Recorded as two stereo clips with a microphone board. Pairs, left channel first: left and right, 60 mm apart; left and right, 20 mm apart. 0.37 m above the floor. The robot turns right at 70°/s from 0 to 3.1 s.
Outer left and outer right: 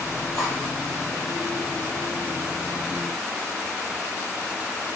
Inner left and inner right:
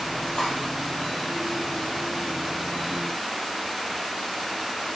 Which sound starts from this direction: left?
Cutlery clinking, at 0.3 s.